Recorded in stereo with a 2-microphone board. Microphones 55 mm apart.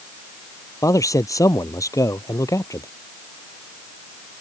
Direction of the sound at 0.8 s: 70° left (ahead or behind).